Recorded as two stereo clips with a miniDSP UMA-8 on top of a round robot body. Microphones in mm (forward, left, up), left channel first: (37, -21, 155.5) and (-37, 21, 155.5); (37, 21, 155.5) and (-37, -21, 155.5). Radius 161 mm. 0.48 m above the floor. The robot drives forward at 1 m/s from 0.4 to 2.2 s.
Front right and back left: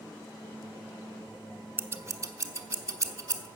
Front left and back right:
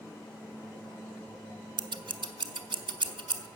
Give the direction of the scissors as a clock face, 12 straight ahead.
5 o'clock.